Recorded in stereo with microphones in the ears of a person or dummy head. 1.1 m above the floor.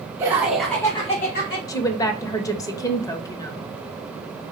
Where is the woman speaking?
15° left (ahead or behind), 0.6 m.